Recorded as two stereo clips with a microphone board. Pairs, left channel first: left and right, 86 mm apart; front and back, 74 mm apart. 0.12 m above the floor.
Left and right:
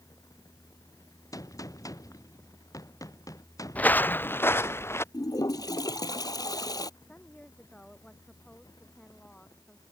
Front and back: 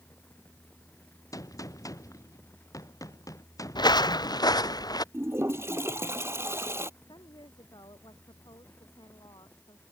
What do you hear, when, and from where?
1.3 s a gunshot: 40° left
3.8 s footsteps: 15° left; by 5.0 s 30° left
5.1 s a toilet flushing: 130° left
7.0 s a woman speaking: 10° left